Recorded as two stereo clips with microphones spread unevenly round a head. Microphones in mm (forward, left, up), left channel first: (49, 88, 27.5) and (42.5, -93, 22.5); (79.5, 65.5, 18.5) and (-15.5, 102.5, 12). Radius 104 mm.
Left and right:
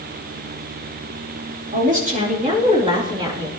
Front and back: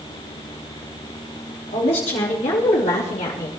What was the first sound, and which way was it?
A woman speaking, 50° right.